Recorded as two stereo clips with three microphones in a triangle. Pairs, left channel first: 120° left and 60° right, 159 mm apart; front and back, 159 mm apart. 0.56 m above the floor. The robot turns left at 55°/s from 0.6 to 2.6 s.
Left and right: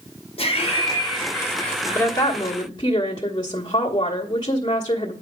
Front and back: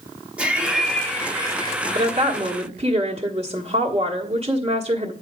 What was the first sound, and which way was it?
Laughter, 100° left.